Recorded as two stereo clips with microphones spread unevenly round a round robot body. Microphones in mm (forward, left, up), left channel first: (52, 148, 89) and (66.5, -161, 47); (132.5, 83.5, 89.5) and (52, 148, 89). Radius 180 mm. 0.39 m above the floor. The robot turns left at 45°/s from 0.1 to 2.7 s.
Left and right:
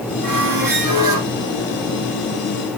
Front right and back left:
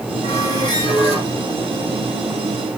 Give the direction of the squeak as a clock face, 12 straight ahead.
2 o'clock.